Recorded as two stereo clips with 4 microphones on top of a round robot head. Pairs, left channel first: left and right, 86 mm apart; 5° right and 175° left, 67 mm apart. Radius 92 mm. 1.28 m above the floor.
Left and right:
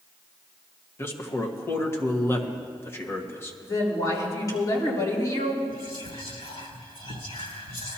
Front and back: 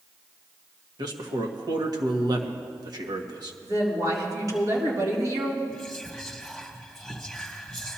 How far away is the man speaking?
About 1.5 m.